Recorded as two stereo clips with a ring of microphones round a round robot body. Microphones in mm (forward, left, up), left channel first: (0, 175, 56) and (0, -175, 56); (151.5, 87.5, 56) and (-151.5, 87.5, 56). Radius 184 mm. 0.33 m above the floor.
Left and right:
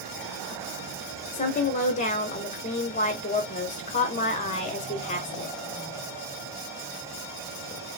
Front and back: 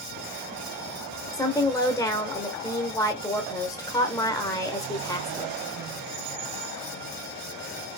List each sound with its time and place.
1.3 s a woman speaking: 65° left, 1.0 m